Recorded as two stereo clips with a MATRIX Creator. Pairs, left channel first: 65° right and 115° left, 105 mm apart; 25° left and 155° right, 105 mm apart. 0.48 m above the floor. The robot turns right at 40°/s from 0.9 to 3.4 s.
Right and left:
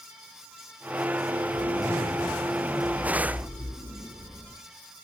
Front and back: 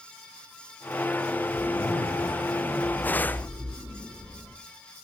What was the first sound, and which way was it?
A zipper, 15° left.